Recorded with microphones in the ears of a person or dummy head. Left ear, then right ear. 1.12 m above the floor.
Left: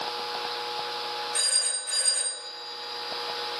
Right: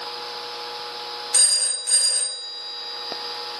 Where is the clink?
No clink in this recording.